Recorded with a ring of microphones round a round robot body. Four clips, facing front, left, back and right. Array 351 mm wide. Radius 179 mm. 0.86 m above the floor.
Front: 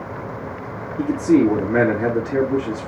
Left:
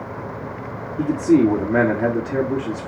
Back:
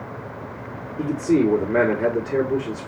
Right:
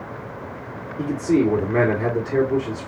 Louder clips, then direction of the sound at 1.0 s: Left 4 dB, front 3 dB; 50° left.